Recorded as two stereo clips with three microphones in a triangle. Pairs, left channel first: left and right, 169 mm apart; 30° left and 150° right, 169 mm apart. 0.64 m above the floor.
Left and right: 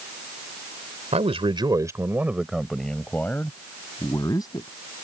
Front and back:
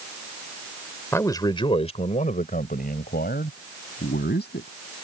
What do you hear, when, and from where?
1.1 s a man speaking: 45° right; by 4.7 s 25° left